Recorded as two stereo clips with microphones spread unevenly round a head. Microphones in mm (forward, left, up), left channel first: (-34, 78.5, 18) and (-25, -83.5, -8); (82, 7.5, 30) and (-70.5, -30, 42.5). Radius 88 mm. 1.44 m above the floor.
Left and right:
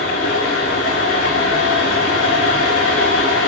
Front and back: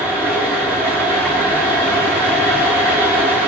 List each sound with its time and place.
0.0 s a fan: 90° left, 4 m